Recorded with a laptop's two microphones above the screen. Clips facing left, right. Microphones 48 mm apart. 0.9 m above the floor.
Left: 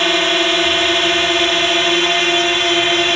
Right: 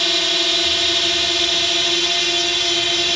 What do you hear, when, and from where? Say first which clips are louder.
0.0 s a drone: left 6 dB; 40° left (ahead or behind)